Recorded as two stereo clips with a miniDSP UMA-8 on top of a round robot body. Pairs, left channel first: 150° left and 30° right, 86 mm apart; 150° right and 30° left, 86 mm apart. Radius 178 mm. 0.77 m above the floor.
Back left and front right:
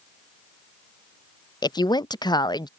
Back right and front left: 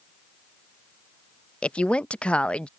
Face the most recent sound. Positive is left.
turn(degrees=135)